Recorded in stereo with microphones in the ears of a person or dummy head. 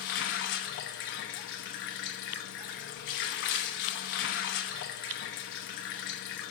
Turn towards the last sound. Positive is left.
turn(degrees=60)  # may be behind; listen again after turning